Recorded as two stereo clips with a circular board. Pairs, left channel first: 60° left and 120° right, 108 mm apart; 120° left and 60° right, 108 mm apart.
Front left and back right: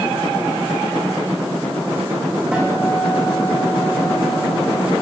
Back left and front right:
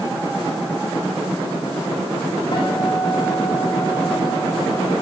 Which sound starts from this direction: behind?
A guitar, at 2.5 s.